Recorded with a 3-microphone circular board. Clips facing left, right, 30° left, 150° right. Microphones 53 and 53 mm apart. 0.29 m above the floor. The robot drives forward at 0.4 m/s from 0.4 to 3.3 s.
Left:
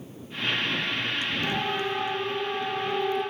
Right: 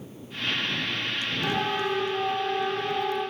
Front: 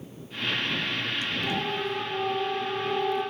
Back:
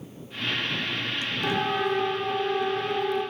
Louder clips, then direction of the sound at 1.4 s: Right 4 dB, back 7 dB; 160° right.